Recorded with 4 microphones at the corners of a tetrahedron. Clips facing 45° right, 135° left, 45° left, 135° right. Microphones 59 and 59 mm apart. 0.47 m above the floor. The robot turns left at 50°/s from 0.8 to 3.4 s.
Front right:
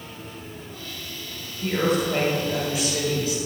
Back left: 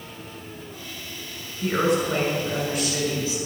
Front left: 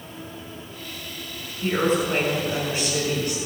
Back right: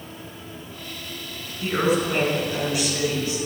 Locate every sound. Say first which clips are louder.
1.6 s a woman speaking: back left 1 dB, even; 155° left, 5.5 m; by 3.4 s 65° left, 5.5 m